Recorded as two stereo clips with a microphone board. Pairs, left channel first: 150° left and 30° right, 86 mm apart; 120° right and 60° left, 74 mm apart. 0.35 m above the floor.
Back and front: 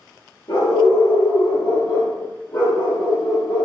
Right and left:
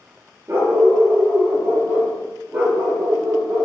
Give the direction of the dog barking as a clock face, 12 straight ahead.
8 o'clock.